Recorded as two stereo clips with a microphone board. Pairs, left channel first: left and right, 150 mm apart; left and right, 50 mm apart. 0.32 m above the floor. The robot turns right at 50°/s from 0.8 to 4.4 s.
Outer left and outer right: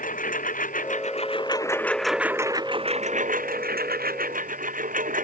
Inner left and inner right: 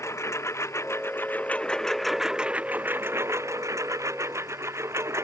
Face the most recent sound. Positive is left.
turn(degrees=-65)